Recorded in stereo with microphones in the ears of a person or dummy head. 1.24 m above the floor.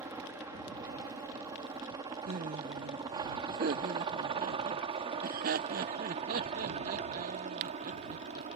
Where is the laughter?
45° right (ahead or behind).